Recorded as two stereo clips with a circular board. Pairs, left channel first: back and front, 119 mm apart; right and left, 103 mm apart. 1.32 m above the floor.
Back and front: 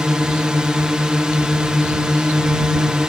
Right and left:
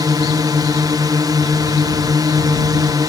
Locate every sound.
0.0 s a drone: 80° left